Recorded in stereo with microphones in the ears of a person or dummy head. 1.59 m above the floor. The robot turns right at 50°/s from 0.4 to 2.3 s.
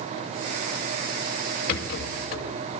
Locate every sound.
1.7 s a rattle: 55° left, 3 m; by 2.5 s 85° left, 3 m